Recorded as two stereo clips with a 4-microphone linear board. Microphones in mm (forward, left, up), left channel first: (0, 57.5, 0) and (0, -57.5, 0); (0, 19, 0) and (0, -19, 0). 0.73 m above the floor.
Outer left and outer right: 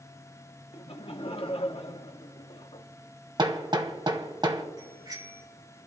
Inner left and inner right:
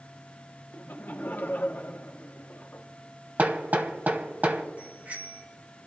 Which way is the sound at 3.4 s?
45° right (ahead or behind).